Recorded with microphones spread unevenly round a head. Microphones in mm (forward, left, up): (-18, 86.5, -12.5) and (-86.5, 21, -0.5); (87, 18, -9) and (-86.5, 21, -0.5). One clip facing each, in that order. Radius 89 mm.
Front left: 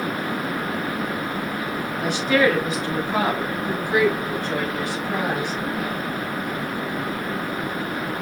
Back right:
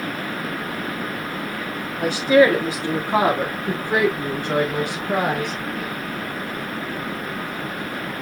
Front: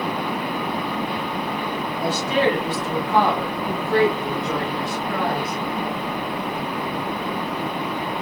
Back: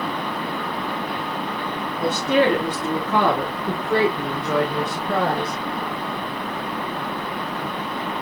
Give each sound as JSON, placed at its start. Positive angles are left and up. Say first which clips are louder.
{"t": 2.0, "sound": "a woman speaking", "louder": "back right 5 dB, back 2 dB", "azimuth_deg": 160, "distance_m": 4.0}